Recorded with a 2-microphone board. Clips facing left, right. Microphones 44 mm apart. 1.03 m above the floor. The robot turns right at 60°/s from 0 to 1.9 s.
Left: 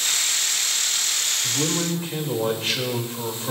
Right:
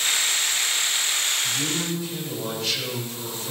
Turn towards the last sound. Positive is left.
turn(degrees=40)  # may be behind; listen again after turning